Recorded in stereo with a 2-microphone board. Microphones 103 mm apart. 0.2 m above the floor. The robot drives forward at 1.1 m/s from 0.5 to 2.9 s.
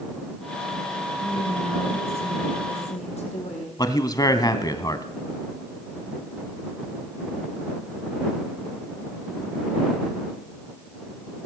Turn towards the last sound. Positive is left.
turn(degrees=35)  # may be behind; listen again after turning